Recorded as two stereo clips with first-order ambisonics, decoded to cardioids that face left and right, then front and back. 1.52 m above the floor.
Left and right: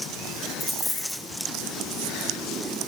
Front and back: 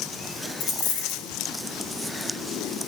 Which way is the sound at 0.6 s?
5° left.